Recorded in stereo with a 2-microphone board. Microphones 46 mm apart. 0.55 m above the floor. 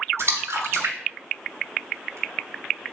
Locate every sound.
0.2 s a splash: 70° right (ahead or behind), 0.8 m